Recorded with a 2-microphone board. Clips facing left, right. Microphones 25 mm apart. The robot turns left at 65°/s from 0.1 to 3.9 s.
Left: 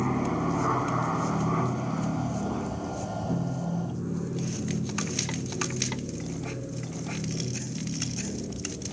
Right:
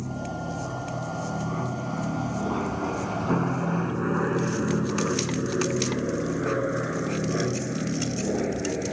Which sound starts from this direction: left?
An aircraft, at 0.0 s.